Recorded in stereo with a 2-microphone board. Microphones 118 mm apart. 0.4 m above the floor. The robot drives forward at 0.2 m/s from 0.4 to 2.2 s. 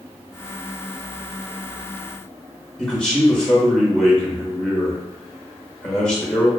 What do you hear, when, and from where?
2.8 s a man speaking: 10° left (ahead or behind), 0.9 m